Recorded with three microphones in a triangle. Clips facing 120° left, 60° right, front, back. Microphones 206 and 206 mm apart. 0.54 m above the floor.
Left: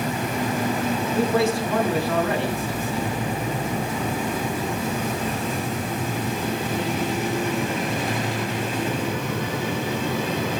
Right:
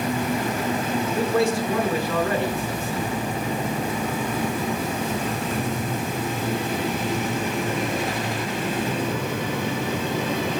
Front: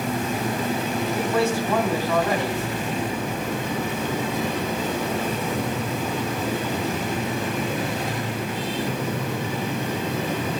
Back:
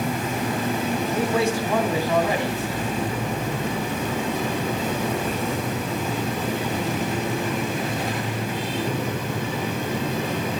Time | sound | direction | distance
1.1 | a man speaking | 105° left | 5 m